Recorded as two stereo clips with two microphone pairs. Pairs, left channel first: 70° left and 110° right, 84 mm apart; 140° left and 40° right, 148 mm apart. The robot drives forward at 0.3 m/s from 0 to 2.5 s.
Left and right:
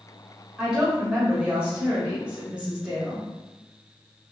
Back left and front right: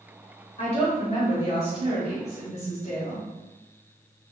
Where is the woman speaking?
175° left, 1.9 m.